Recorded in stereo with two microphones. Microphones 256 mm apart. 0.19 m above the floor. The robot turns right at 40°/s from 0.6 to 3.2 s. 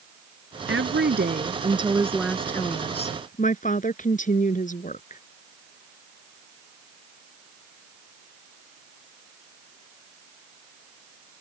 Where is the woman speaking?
65° right; by 5.2 s 35° left.